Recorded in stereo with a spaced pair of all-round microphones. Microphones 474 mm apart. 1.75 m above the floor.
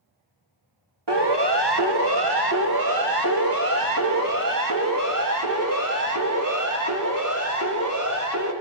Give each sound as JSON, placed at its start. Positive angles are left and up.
{"t": 1.1, "sound": "a siren", "side_deg": -60, "distance_m": 2.0}